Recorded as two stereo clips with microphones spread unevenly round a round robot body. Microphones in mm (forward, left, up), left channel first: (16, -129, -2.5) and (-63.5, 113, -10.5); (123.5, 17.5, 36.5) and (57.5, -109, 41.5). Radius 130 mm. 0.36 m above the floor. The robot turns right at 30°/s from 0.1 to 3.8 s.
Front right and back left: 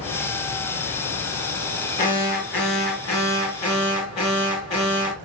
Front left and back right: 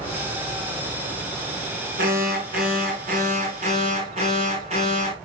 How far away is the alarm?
About 7 m.